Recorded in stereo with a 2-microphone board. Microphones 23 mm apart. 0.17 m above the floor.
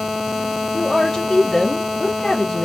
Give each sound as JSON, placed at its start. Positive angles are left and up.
{"t": 0.7, "sound": "a woman speaking", "side_deg": 20, "distance_m": 1.0}